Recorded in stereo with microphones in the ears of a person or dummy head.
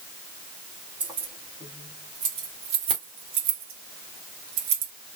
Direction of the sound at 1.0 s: 10° right (ahead or behind).